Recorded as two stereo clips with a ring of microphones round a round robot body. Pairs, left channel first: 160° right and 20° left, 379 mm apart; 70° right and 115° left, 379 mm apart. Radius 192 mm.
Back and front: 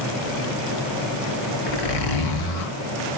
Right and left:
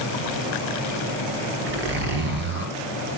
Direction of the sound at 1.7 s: 175° left.